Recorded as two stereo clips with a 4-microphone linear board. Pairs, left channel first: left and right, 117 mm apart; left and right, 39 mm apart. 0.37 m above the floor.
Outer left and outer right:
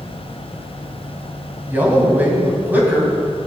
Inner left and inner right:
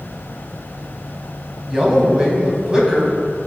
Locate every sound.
1.7 s a man speaking: 15° right (ahead or behind), 2.5 m